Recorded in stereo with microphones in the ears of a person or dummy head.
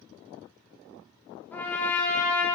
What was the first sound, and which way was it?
A trumpet, 15° left (ahead or behind).